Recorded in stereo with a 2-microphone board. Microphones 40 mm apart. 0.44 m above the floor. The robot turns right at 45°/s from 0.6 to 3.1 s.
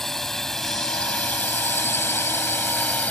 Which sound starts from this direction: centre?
A drone, at 0.0 s.